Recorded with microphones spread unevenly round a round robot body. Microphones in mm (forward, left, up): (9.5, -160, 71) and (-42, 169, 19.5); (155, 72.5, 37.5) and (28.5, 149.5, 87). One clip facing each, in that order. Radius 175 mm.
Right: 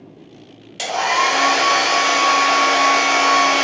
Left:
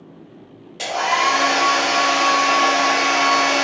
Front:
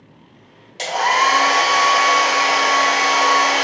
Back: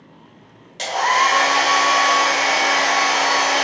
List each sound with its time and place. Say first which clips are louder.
0.8 s a hair dryer: right 1 dB, front 1 dB; 55° right, 1.4 m